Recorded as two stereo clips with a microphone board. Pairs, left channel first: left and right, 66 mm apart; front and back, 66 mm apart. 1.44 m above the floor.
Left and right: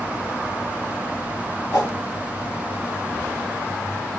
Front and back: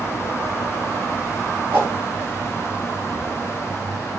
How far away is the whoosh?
About 0.9 m.